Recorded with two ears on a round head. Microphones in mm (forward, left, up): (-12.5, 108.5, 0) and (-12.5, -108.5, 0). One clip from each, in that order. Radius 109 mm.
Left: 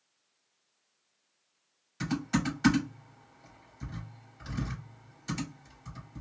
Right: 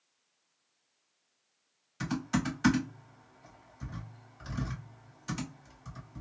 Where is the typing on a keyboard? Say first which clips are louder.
Left 2 dB; centre (ahead or behind), 1.7 m.